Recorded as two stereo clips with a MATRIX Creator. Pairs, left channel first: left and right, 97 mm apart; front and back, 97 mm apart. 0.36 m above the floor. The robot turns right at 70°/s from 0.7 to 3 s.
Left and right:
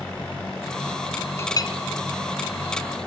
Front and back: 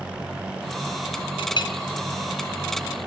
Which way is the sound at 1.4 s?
25° left.